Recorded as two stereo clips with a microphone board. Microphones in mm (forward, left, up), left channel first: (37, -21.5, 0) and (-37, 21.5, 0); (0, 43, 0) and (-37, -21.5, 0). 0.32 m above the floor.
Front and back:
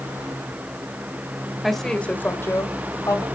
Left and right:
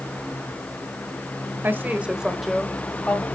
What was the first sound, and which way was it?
A woman speaking, 120° right.